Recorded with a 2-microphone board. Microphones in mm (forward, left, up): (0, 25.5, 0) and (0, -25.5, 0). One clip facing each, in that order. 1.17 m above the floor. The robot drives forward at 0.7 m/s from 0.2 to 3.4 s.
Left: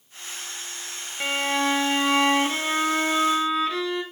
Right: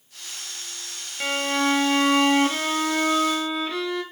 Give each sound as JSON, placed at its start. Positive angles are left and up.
{"t": 1.2, "sound": "a violin", "side_deg": 5, "distance_m": 1.3}